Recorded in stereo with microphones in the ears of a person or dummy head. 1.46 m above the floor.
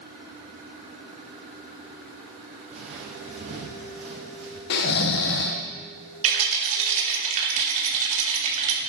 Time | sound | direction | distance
2.7 | footsteps | 45° right (ahead or behind) | 3 m
4.7 | snoring | 70° left (ahead or behind) | 1.0 m
6.2 | a rattle | 45° right (ahead or behind) | 3 m